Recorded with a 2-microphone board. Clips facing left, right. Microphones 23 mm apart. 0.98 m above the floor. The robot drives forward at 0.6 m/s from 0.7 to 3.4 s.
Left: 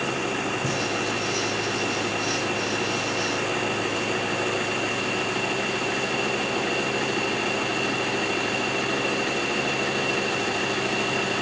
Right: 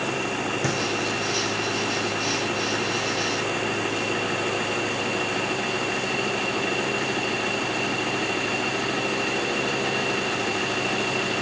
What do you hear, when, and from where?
0.6 s a thud: 65° right (ahead or behind), 9 m